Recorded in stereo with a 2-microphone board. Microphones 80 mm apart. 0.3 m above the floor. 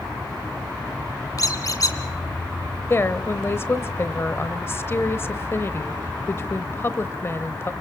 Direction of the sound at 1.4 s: 50° left (ahead or behind).